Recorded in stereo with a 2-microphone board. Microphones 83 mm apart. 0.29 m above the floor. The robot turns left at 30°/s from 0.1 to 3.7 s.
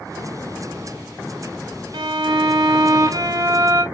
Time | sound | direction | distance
1.9 | a violin | 100° right | 0.7 m